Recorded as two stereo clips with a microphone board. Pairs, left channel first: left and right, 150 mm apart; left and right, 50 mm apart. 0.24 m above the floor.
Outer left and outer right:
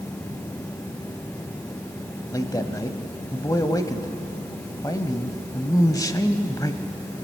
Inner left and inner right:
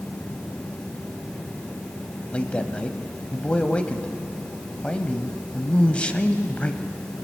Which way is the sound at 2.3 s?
25° left (ahead or behind).